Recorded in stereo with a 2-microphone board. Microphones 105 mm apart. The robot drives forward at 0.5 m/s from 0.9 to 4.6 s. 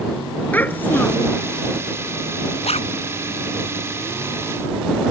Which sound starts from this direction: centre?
A child speaking, at 0.5 s.